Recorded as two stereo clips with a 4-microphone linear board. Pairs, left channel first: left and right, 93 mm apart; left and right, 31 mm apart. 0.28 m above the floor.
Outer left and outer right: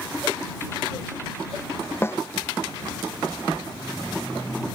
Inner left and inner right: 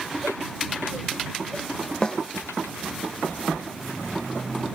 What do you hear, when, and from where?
2.0 s a snare drum: 25° left (ahead or behind)